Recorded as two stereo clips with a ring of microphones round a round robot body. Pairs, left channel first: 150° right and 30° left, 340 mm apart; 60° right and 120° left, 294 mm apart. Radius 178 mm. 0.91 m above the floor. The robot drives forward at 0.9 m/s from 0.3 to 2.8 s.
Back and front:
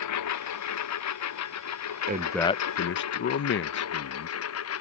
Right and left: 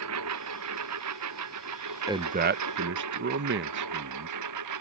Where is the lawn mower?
170° left; by 4.8 s 160° left.